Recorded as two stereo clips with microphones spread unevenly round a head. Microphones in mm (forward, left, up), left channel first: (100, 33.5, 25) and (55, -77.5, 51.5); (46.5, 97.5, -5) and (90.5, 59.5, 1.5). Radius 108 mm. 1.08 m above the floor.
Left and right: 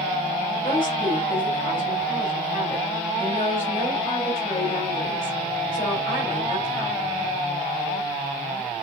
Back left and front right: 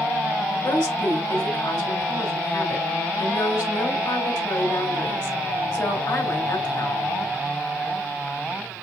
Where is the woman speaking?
150° left, 2.5 m.